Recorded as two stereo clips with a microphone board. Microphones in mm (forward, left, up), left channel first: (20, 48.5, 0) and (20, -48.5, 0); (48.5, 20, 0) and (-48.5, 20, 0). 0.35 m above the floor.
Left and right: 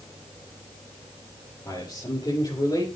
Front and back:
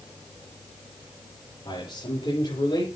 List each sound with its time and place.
1.6 s a man speaking: 40° left, 8 m; by 2.9 s 50° left, 8 m